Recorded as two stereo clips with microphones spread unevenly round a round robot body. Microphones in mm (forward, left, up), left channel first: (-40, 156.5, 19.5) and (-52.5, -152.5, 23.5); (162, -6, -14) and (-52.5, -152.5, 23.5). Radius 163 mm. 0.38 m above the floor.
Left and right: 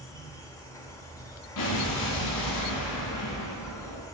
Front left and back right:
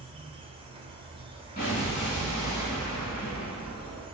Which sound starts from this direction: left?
An explosion, at 1.6 s.